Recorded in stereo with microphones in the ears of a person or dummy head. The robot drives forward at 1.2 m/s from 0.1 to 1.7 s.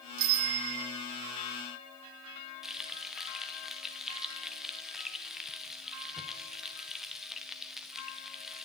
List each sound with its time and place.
0.2 s a bicycle bell: 75° right (ahead or behind), 2.5 m; by 1.0 s 70° right (ahead or behind), 2.5 m
2.6 s frying: centre (ahead or behind), 0.8 m